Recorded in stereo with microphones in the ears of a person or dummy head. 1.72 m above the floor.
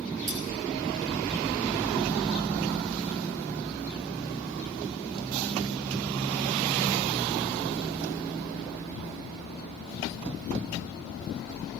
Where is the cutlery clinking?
40° right (ahead or behind), 1.5 m.